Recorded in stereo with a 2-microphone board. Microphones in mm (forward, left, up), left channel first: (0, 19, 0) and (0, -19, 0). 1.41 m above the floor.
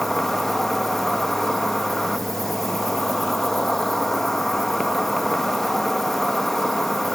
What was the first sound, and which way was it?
An insect, 10° left (ahead or behind).